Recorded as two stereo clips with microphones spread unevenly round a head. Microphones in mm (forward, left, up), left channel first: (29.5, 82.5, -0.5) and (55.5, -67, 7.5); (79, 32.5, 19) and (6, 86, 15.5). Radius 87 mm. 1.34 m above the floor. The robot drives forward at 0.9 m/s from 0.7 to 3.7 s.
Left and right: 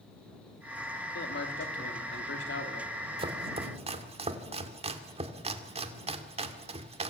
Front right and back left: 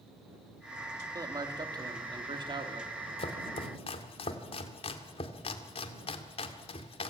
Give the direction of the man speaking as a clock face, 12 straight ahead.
9 o'clock.